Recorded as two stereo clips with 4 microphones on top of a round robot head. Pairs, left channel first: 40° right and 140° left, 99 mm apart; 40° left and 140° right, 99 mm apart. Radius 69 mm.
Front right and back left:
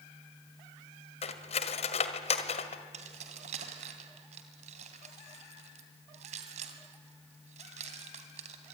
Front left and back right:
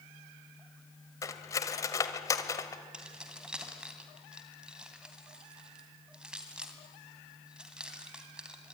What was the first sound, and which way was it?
Cutlery clinking, 20° right.